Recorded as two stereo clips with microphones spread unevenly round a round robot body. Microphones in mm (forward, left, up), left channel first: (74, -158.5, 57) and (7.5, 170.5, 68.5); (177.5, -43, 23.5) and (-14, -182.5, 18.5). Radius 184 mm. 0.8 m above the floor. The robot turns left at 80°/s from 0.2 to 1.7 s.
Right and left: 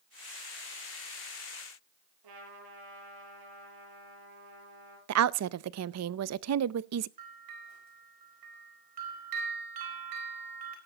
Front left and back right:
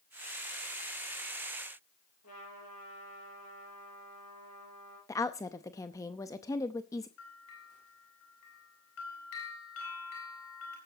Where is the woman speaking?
110° left, 0.6 m.